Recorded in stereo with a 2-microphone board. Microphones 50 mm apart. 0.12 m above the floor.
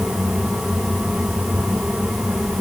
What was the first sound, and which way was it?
Only background noise.